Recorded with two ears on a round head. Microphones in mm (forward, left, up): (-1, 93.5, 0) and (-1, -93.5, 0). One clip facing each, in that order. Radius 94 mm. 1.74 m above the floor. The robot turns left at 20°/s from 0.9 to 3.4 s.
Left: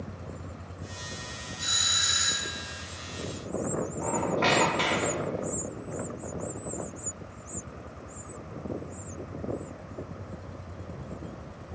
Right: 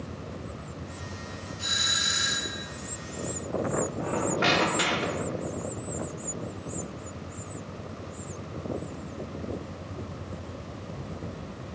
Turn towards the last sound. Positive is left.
turn(degrees=-15)  # may be behind; listen again after turning